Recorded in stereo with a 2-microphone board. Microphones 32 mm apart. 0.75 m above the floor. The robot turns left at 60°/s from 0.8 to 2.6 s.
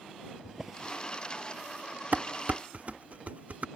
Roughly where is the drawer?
Centre.